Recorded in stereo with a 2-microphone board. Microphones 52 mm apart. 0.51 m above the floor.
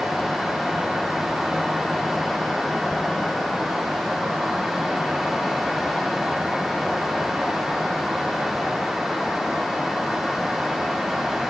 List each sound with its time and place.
Only background noise.